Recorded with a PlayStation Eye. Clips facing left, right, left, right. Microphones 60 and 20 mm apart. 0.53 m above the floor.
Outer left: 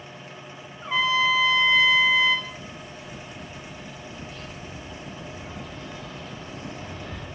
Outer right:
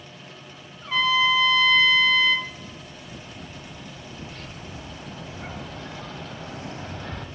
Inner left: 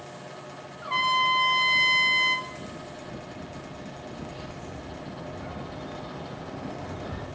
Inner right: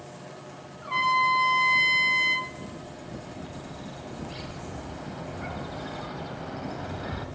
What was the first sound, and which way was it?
A trumpet, 15° left (ahead or behind).